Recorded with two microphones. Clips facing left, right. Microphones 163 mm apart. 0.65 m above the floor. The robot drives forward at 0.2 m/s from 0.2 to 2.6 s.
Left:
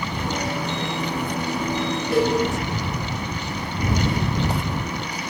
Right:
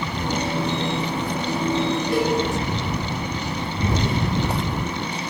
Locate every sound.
2.1 s a cowbell: centre (ahead or behind), 0.6 m